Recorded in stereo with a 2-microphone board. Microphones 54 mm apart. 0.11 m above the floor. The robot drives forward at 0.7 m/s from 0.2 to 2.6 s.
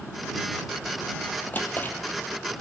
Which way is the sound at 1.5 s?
35° left (ahead or behind).